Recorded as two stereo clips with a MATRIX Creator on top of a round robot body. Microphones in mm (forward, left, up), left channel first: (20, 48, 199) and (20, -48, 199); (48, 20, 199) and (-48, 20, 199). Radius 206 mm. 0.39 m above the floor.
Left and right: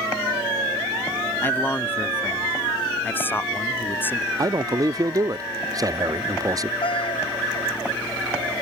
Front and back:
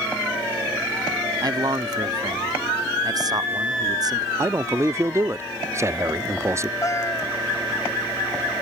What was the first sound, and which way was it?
A man speaking, 155° left.